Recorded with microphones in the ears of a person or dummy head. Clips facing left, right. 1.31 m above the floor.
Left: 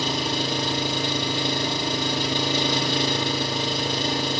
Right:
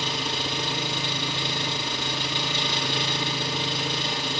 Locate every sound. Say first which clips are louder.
0.0 s an engine running: left 5 dB; 35° left (ahead or behind), 1.9 m